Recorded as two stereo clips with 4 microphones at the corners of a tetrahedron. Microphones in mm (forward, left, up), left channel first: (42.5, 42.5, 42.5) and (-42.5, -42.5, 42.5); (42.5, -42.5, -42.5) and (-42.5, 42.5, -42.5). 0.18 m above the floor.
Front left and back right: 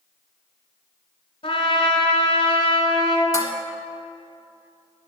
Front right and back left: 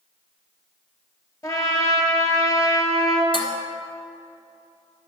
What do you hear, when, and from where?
1.4 s a trumpet: 10° left, 1.5 m
3.3 s dishes clattering: 10° right, 1.3 m